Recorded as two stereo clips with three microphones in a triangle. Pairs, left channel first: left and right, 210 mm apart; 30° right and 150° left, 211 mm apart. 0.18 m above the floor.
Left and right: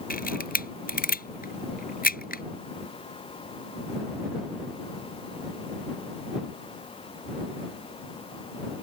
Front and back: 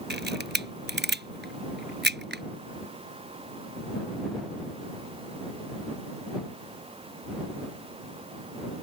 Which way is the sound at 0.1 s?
130° left.